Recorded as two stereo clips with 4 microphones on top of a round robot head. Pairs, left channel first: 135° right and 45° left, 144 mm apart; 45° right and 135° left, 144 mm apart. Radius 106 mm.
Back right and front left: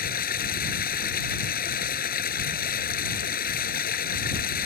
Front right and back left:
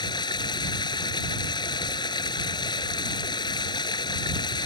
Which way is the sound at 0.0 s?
110° right.